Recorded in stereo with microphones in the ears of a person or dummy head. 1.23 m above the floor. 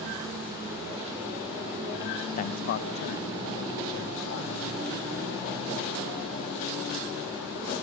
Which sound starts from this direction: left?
A man speaking, at 2.4 s.